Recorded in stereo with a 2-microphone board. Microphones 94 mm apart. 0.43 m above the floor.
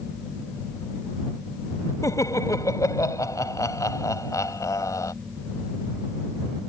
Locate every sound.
2.0 s laughter: 35° left (ahead or behind)